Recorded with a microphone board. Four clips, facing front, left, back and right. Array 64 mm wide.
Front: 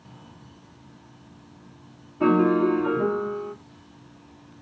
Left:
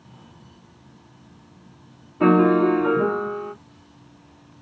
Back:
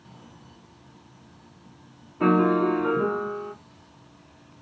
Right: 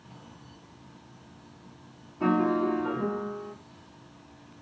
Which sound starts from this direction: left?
A piano, at 2.2 s.